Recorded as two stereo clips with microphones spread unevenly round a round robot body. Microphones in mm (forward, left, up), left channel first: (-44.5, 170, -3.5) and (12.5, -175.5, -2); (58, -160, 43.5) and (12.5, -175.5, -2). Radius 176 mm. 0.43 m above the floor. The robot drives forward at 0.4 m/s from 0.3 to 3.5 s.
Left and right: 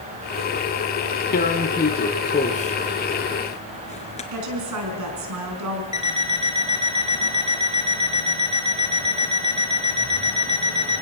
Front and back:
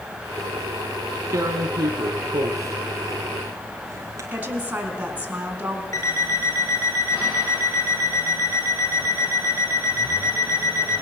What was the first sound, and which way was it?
Tearing paper, 165° left.